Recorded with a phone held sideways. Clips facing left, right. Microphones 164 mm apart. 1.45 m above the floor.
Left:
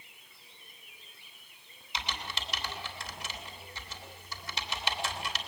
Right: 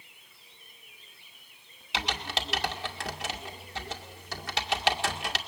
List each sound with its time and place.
1.9 s typing on a keyboard: 85° right, 2 m